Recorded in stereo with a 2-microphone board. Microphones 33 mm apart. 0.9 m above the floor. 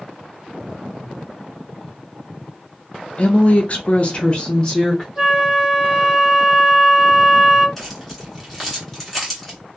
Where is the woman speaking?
35° left (ahead or behind), 0.6 m; by 5.0 s 20° left (ahead or behind), 0.9 m.